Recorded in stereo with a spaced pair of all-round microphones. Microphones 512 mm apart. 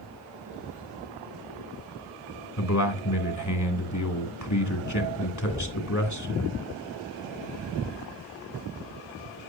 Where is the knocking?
10° left (ahead or behind), 2.5 m.